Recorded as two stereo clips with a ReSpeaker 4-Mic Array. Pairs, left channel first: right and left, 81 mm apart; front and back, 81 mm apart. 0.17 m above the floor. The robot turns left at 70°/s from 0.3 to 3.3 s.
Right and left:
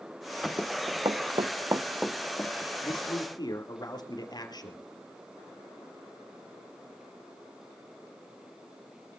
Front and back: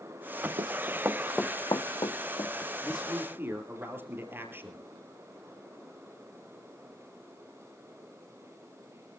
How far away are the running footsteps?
About 0.5 m.